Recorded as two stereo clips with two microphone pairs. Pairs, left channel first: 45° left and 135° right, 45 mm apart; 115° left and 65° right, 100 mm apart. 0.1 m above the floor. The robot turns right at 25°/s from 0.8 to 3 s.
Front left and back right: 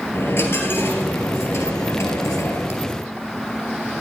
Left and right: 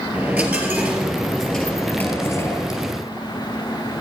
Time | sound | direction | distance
0.1 | a dropped coin | 10° left | 3.5 m